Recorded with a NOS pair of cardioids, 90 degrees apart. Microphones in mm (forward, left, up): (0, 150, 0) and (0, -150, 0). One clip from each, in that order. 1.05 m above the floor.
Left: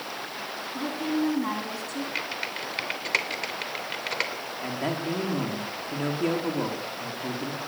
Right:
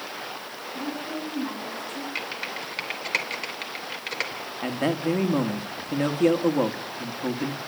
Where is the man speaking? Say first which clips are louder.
Right 5 dB; 35° right, 1.9 m.